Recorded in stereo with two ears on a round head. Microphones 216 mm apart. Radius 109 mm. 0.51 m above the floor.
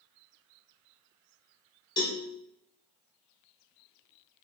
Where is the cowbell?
15° left (ahead or behind), 0.8 m.